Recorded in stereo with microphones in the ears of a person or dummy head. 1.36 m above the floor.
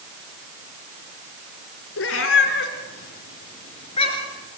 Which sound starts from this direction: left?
A cat meowing, at 2.0 s.